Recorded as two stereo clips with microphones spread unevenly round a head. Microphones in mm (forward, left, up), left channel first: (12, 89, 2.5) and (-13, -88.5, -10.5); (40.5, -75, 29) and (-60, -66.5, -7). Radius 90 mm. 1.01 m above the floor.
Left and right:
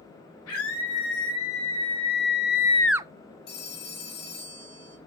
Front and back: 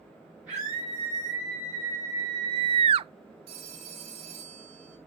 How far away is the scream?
About 4 m.